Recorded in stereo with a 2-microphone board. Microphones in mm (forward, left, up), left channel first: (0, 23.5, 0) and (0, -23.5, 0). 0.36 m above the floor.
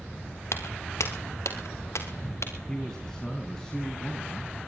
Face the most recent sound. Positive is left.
turn(degrees=10)  # may be behind; listen again after turning